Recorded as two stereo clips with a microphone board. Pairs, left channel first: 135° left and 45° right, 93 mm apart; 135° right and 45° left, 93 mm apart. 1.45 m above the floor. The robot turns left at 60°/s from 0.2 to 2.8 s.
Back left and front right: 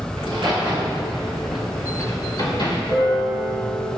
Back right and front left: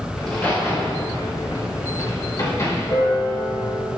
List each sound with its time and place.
0.2 s a crack: 50° right, 5 m; by 2.8 s 155° left, 5 m
2.9 s a piano: 170° left, 5.5 m